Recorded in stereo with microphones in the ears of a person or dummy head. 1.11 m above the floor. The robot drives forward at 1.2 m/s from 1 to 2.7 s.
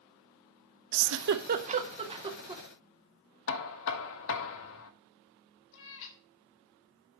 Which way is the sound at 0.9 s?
75° right (ahead or behind).